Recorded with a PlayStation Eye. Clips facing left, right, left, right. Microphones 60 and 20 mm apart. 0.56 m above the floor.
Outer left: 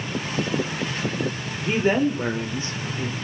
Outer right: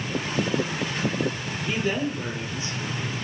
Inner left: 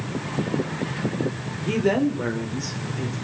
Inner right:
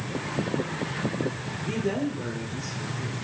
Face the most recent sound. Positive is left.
turn(degrees=45)  # may be behind; listen again after turning